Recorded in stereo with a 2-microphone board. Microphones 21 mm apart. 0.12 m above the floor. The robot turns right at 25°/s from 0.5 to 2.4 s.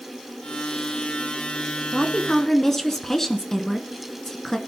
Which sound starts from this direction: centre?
A woman speaking, at 1.9 s.